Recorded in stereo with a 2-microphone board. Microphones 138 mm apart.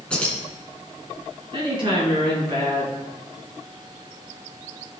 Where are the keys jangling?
10° left (ahead or behind), 2.5 m.